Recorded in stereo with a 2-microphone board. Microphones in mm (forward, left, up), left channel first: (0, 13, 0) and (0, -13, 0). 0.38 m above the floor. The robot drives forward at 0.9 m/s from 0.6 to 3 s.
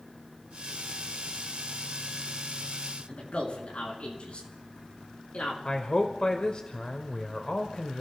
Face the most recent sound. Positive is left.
turn(degrees=40)  # may be behind; listen again after turning